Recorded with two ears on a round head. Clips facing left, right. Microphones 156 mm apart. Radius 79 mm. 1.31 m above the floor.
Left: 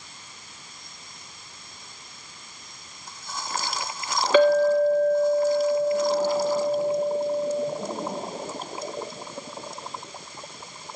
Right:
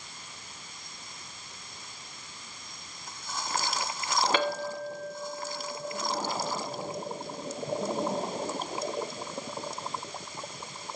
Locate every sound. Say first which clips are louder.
4.3 s a clink: left 13 dB; 65° left (ahead or behind), 1.9 m